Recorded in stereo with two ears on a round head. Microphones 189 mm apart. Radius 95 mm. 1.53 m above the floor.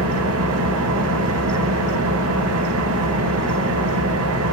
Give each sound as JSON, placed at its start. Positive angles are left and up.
{"t": 0.0, "sound": "an engine running", "side_deg": -75, "distance_m": 1.0}